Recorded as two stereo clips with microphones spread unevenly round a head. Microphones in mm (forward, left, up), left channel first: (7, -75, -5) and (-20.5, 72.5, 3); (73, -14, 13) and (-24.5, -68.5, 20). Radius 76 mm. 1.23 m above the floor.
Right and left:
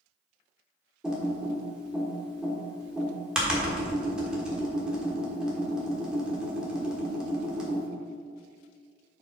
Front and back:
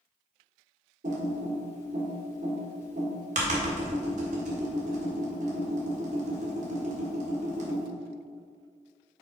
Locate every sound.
1.0 s typing on a keyboard: 175° right, 1.4 m